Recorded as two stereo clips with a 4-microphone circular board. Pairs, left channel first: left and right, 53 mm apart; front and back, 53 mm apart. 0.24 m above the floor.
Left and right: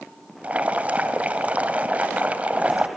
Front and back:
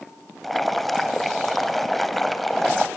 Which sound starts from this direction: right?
Boiling, at 0.4 s.